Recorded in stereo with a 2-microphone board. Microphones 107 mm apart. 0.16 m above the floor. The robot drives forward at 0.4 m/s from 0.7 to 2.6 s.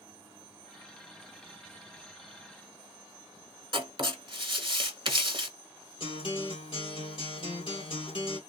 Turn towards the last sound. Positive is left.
turn(degrees=55)  # may be behind; listen again after turning